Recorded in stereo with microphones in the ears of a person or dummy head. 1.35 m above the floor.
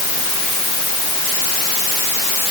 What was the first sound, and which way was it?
Only background noise.